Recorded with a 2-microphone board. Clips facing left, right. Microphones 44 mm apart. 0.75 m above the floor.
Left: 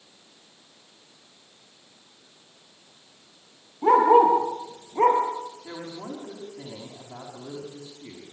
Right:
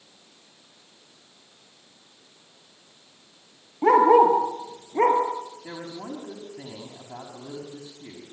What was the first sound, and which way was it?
A dog barking, 70° right (ahead or behind).